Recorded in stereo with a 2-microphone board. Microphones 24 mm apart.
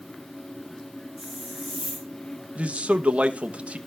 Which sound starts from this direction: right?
A man speaking, at 2.5 s.